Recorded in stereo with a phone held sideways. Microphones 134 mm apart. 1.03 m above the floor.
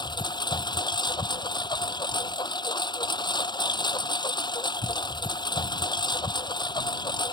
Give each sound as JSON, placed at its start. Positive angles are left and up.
{"t": 0.0, "sound": "a lawn mower", "side_deg": 35}